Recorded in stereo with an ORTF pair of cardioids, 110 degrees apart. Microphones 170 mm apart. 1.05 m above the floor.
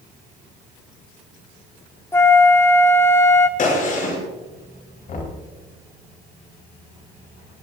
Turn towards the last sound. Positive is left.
turn(degrees=50)